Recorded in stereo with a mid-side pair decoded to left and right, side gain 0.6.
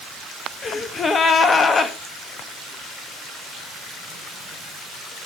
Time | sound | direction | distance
0.6 | a gasp | 30° left | 1.2 m